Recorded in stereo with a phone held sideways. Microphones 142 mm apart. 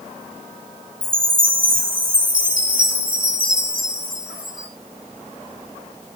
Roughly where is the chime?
Right.